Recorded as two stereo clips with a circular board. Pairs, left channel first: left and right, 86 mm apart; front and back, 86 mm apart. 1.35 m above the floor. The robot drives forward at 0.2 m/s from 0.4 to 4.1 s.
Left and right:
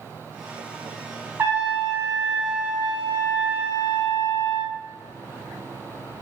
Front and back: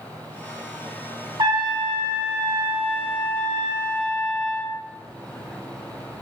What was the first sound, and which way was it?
A trumpet, 155° right.